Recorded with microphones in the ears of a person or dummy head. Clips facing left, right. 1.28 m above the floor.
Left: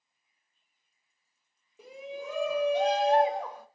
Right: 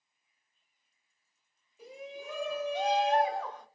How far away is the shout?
About 1.0 m.